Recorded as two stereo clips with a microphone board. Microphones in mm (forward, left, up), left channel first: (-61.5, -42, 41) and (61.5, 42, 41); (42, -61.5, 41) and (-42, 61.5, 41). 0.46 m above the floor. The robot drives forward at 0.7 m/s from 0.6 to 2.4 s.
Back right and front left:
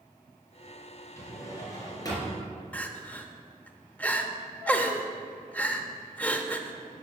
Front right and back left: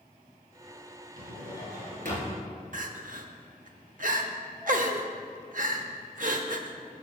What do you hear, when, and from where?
1.2 s a drawer: 140° left, 2.5 m; by 2.5 s 150° left, 3 m
2.7 s crying: 135° left, 0.7 m